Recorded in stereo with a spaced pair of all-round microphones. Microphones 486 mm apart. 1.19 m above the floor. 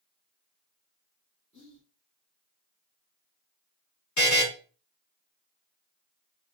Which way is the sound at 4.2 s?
35° left (ahead or behind).